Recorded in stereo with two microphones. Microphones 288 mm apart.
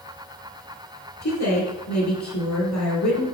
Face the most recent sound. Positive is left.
turn(degrees=70)  # may be behind; listen again after turning